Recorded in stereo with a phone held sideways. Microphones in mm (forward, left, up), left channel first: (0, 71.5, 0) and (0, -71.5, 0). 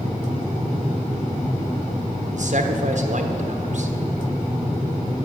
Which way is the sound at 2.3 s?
60° right (ahead or behind).